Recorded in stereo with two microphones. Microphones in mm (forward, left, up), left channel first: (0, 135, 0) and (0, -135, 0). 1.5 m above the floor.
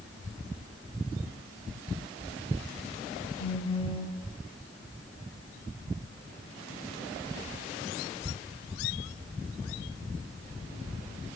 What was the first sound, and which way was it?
A phone buzzing, 25° left (ahead or behind).